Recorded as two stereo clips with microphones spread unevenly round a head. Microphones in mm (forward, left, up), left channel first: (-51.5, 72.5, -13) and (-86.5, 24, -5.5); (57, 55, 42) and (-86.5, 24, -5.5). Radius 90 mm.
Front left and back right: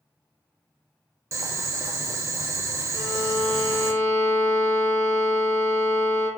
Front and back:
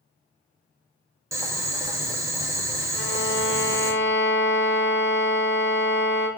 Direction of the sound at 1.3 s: 135° right.